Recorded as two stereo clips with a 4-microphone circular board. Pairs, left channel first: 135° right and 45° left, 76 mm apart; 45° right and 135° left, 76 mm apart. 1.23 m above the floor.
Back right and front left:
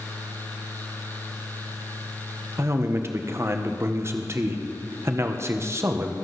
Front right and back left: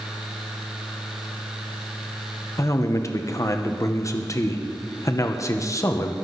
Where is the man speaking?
5° right, 1.0 m.